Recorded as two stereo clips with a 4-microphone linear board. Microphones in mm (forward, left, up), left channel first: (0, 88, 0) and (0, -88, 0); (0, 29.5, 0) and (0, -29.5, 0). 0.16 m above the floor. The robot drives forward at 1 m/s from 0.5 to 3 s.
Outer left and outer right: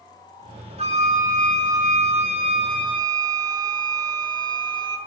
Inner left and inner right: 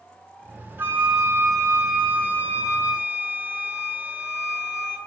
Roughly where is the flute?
Right.